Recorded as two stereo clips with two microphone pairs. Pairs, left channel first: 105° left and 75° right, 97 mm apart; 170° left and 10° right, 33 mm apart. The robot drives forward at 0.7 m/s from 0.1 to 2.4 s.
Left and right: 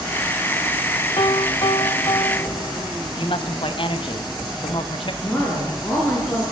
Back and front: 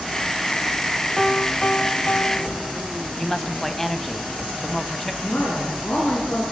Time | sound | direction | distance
1.2 | a piano | 90° left | 0.6 m
3.2 | a woman speaking | 90° left | 2 m
5.2 | a woman speaking | 170° left | 8 m